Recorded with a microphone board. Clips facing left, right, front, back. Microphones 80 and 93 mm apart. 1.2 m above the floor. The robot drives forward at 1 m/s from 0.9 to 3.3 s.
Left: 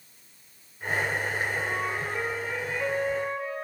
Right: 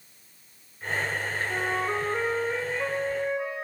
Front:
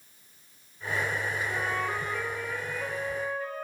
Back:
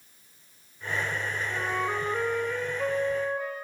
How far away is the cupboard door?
No cupboard door in this recording.